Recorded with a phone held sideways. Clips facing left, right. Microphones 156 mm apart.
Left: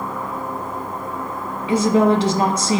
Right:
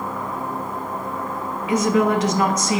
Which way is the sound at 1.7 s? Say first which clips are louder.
Left 3 dB; 30° left (ahead or behind).